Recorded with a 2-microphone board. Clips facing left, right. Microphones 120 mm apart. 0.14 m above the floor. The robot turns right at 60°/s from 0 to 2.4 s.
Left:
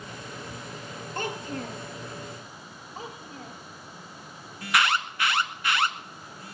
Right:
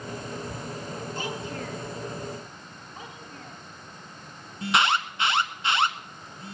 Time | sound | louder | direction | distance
1.1 | a child speaking | left 4 dB | 115° left | 2.5 m
3.0 | a child speaking | left 4 dB | 35° left (ahead or behind) | 7 m
4.6 | an alarm | right 2 dB | 25° right (ahead or behind) | 1.3 m